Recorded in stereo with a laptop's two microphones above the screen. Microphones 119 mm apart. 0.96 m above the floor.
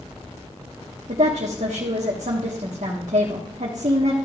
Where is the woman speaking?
70° right (ahead or behind), 1.4 m.